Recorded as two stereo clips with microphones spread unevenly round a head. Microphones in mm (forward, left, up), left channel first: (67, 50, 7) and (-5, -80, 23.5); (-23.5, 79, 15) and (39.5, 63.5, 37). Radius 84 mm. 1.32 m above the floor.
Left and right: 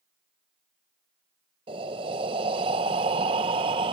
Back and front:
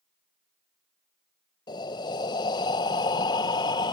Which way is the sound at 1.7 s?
Straight behind.